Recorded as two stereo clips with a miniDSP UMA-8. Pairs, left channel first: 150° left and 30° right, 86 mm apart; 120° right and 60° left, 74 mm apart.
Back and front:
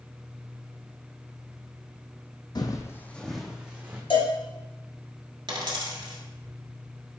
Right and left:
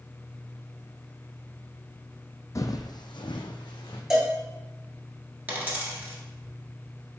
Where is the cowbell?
140° left, 1.0 m.